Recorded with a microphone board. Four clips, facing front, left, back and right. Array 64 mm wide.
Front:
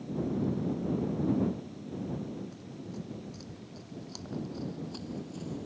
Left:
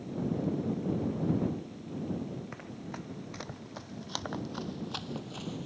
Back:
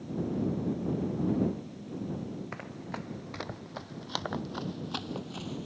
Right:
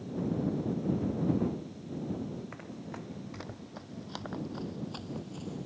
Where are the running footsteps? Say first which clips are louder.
Left 1 dB, back 3 dB; 175° left; by 5.7 s 140° left.